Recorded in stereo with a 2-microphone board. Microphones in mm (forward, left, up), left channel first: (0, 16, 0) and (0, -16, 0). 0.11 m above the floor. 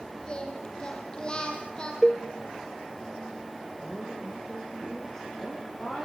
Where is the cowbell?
5° left (ahead or behind), 1.3 m.